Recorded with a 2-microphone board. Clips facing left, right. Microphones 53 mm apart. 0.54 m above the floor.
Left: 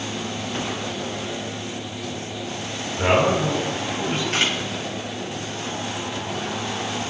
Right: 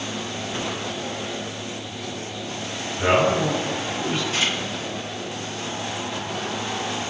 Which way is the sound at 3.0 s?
50° left (ahead or behind).